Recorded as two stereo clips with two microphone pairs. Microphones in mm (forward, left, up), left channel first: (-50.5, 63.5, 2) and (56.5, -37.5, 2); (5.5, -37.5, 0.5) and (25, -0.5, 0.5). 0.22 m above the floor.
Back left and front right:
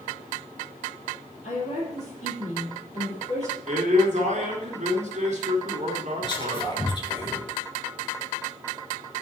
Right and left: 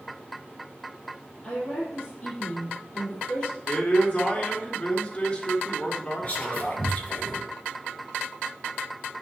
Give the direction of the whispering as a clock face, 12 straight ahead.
6 o'clock.